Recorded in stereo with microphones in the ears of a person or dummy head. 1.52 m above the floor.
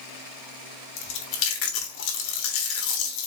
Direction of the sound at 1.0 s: 70° left (ahead or behind).